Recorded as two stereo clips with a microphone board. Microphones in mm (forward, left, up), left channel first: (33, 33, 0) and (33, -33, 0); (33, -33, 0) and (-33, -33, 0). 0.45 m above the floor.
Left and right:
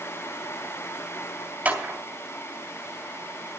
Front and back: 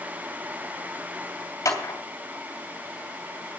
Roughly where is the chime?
I don't hear a chime.